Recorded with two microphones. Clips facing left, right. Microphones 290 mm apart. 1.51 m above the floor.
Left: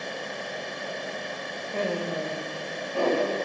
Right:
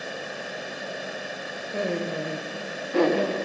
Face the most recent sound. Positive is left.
turn(degrees=-80)